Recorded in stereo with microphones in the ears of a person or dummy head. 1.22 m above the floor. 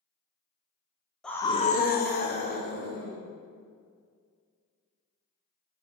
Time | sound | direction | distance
1.2 | a scream | 5° left (ahead or behind) | 0.5 m